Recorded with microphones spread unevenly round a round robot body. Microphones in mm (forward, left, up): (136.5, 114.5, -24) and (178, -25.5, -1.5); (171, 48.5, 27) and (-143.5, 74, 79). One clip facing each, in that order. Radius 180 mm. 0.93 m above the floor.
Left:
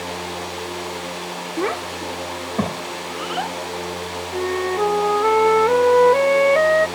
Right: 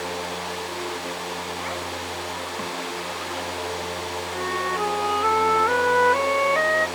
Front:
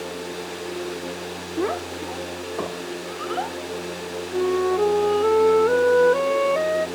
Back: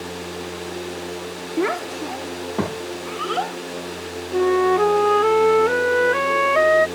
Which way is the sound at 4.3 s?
165° left.